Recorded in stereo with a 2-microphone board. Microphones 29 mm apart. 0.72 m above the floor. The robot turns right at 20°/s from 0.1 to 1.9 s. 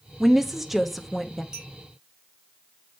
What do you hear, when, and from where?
0.2 s a woman speaking: 10° right (ahead or behind), 0.8 m; by 1.4 s centre (ahead or behind), 0.8 m
1.5 s a clink: 25° right (ahead or behind), 4 m; by 1.7 s 20° right (ahead or behind), 4 m